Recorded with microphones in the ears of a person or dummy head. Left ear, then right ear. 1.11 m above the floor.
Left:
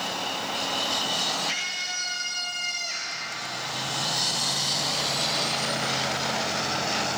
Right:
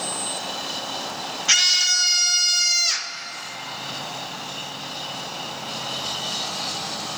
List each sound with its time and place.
1.5 s a scream: 50° right (ahead or behind), 1.3 m